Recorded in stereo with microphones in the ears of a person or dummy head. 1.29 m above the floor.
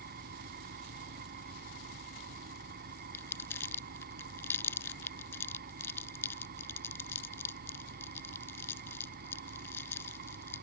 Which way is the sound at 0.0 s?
50° right (ahead or behind).